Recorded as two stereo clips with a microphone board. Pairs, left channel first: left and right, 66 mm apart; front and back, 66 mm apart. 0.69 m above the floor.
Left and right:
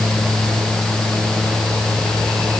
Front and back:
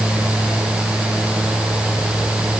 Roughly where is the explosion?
I don't hear an explosion.